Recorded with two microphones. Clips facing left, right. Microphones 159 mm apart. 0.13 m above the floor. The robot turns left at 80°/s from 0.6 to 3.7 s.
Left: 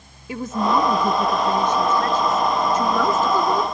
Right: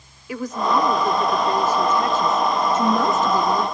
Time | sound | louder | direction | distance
0.3 | a woman speaking | left 1 dB | 30° left (ahead or behind) | 1.5 m